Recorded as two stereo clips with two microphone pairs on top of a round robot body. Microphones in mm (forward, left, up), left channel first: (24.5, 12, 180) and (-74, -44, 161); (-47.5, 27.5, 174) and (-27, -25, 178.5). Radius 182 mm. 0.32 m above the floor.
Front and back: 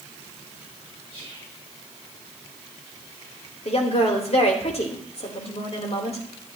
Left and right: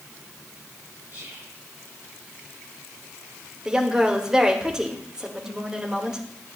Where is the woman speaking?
10° left, 2 m.